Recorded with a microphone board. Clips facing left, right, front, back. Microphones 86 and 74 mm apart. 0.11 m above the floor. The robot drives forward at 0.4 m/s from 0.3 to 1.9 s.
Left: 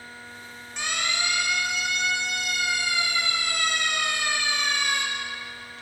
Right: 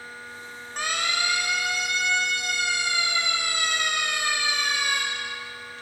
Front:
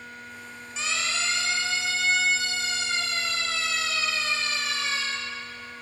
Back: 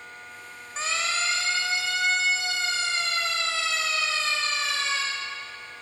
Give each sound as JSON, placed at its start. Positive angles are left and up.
{"t": 0.8, "sound": "a siren", "azimuth_deg": -135, "distance_m": 5.5}